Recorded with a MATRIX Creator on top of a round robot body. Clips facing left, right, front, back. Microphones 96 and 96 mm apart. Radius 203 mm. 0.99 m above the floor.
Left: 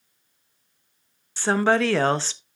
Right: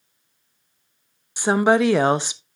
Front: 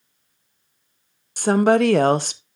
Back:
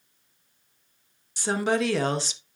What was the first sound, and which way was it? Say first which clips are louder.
A woman speaking: right 3 dB, front 9 dB; 20° right.